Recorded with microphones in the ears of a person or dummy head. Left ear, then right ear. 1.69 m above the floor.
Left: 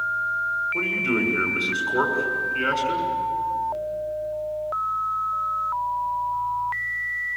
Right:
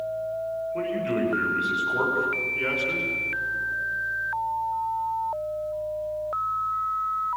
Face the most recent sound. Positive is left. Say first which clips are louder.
# left 4 dB
turn(degrees=90)